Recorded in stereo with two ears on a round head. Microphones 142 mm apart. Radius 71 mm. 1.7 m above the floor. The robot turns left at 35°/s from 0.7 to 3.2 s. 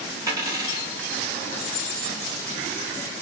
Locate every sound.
0.3 s a dropped coin: 20° right (ahead or behind), 1.0 m; by 0.9 s 25° right (ahead or behind), 1.0 m